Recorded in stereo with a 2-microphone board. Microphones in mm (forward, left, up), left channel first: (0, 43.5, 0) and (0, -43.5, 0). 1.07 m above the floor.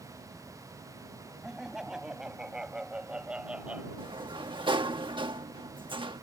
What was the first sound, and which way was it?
Laughter, 5° right (ahead or behind).